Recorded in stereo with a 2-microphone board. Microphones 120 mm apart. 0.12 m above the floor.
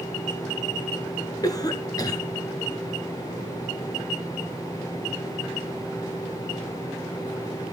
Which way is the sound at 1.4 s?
30° left (ahead or behind).